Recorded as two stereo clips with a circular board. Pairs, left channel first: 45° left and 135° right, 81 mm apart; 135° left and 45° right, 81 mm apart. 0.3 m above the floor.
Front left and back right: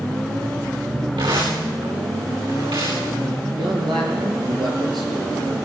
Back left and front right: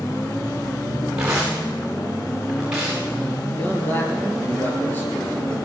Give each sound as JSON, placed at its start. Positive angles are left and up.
{"t": 1.2, "sound": "tearing paper", "azimuth_deg": -125, "distance_m": 9.5}
{"t": 3.5, "sound": "a man speaking", "azimuth_deg": -160, "distance_m": 7.0}